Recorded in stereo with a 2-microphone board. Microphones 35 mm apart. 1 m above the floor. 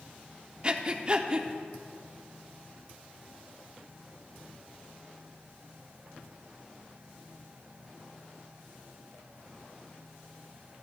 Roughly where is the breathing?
Right.